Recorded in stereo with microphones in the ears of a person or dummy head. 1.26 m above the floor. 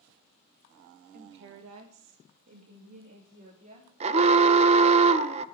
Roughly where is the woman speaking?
Right.